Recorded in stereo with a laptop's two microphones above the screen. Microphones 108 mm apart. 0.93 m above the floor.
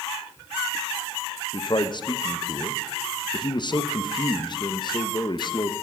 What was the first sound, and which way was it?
A man speaking, 45° left (ahead or behind).